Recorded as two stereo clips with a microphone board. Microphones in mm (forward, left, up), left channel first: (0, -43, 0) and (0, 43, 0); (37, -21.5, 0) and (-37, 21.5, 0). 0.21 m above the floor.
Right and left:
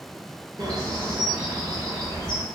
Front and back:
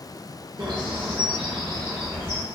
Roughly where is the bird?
Behind left.